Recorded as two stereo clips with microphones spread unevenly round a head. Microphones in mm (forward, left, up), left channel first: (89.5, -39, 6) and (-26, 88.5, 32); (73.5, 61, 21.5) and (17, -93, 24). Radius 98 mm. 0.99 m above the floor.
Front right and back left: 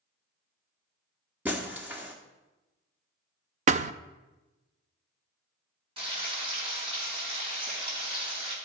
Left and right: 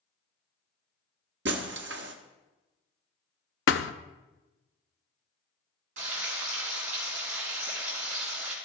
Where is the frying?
165° right, 4 m.